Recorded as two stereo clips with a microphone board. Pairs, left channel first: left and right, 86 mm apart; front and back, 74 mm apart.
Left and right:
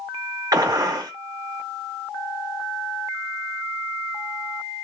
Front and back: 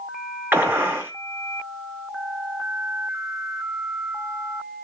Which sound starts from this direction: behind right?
A gunshot, at 0.5 s.